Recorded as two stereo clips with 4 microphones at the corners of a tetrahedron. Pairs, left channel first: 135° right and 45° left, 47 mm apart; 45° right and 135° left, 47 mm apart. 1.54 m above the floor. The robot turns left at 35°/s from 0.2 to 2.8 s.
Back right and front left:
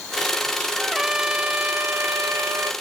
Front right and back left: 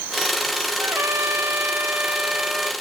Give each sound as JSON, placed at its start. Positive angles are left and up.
{"t": 0.8, "sound": "a trumpet", "azimuth_deg": 125, "distance_m": 0.5}